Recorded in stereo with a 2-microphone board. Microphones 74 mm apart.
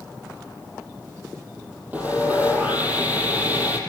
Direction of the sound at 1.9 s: 20° right (ahead or behind).